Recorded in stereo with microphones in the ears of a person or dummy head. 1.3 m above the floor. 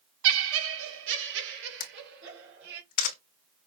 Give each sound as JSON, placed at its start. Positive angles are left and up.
{"t": 0.2, "sound": "laughter", "side_deg": -80, "distance_m": 0.5}
{"t": 1.8, "sound": "a camera shutter", "side_deg": 50, "distance_m": 0.9}